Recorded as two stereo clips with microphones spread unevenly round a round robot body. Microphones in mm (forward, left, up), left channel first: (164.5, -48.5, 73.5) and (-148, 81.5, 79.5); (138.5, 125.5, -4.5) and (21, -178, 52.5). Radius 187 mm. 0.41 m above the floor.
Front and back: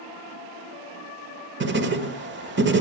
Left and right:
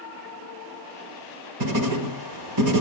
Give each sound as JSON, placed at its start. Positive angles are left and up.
{"t": 1.6, "sound": "writing", "azimuth_deg": -150, "distance_m": 1.5}